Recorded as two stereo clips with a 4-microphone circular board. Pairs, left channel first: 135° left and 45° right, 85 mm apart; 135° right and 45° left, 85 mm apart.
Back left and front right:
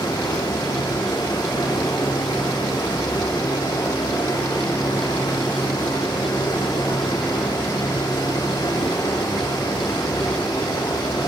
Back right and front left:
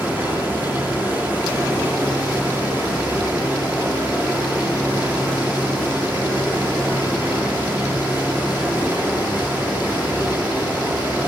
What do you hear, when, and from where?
0.0 s running water: 110° left, 2.5 m